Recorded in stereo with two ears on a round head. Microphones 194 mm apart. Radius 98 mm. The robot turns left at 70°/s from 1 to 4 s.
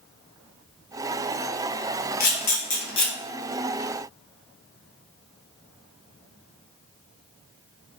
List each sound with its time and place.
2.2 s a camera shutter: 45° left (ahead or behind), 1.1 m; by 3.1 s 20° left (ahead or behind), 1.1 m